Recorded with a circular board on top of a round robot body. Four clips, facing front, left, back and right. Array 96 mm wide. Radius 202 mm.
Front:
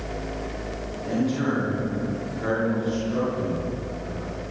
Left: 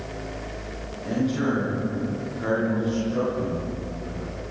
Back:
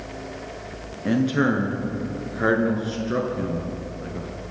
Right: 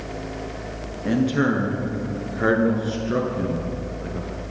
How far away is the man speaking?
About 7 m.